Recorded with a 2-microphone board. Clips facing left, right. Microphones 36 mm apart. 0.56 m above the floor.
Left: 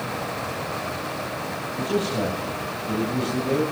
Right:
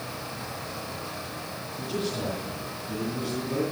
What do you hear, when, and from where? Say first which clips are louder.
1.8 s a man speaking: left 6 dB; 75° left (ahead or behind), 2.5 m